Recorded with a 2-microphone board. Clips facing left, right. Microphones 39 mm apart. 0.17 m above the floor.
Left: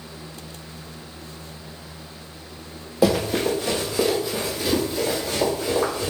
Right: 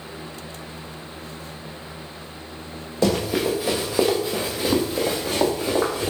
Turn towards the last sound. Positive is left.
turn(degrees=-50)  # may be behind; listen again after turning